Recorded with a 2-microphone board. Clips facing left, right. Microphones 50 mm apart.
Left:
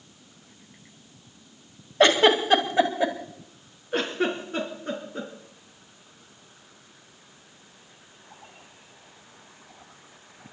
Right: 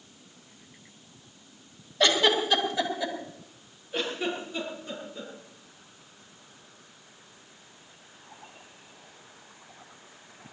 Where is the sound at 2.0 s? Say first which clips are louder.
Left 5 dB; 45° left (ahead or behind), 2.5 m.